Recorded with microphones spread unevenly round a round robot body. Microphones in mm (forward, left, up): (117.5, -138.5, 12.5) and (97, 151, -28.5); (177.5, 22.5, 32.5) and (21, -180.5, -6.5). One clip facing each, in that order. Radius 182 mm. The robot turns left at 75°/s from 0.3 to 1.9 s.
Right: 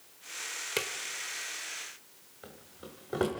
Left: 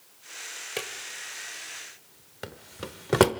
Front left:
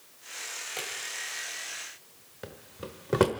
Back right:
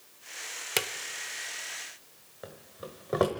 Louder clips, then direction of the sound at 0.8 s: Even, back right 7 dB; 160° right.